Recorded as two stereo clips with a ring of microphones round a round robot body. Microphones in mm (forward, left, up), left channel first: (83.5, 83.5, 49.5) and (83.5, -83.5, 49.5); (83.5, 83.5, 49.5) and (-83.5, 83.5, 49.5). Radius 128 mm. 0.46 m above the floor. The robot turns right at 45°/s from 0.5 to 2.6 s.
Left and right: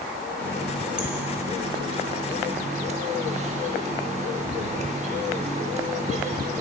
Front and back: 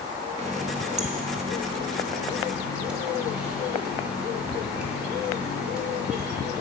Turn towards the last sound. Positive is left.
turn(degrees=-100)